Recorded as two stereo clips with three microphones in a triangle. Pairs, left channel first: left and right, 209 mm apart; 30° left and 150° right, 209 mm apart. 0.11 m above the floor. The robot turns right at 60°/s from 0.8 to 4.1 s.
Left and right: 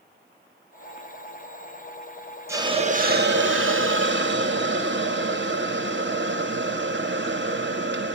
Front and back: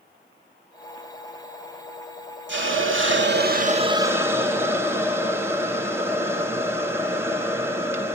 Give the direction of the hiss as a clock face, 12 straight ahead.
6 o'clock.